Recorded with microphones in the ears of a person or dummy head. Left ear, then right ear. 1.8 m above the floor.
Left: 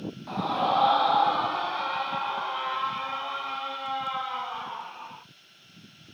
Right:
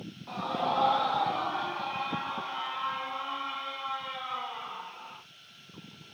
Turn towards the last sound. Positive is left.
turn(degrees=80)